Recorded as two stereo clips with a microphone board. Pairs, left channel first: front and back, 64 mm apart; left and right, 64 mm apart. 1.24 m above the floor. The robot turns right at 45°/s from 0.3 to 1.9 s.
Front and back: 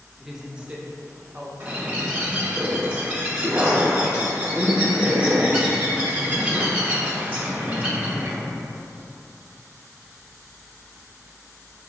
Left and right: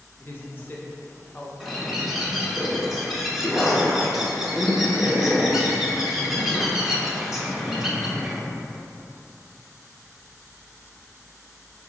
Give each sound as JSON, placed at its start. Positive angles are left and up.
{"t": 0.2, "sound": "a woman speaking", "azimuth_deg": 105, "distance_m": 0.7}
{"t": 1.6, "sound": "a bird", "azimuth_deg": -175, "distance_m": 0.9}